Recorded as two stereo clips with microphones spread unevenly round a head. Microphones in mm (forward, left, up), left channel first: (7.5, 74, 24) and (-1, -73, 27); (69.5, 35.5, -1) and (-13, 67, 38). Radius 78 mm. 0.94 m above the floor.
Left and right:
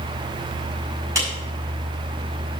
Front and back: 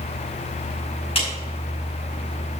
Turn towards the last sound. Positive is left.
turn(degrees=-25)